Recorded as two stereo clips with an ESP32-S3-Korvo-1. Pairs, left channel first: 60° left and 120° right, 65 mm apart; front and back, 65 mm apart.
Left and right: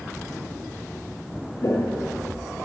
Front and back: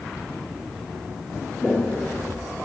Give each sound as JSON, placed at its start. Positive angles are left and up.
{"t": 1.6, "sound": "footsteps", "azimuth_deg": 80, "distance_m": 0.8}